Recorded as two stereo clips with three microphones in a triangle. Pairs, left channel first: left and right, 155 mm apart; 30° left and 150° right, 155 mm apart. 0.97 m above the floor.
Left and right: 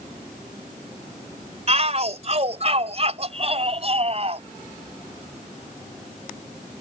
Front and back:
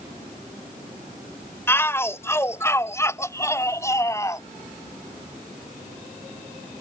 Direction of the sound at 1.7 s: 45° right.